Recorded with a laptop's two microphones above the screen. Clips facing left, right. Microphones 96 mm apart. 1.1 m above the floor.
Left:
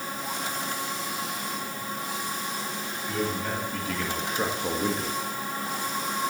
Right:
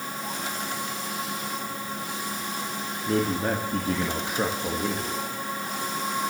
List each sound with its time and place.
3.1 s a man speaking: 55° right (ahead or behind), 2.5 m; by 5.2 s 20° left (ahead or behind), 1.9 m